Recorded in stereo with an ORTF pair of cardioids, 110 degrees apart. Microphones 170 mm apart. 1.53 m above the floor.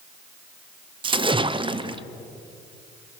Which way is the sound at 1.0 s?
30° right.